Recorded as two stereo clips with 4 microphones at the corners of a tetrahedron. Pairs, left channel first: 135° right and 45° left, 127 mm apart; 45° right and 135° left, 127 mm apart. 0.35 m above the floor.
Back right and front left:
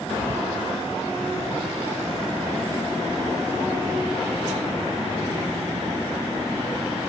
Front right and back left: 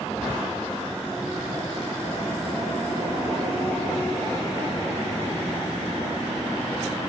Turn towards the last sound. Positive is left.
turn(degrees=-140)